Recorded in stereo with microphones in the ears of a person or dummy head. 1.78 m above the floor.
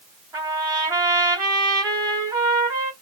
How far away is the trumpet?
About 0.9 m.